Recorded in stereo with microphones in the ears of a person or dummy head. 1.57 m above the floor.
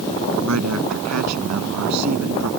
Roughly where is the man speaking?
Right.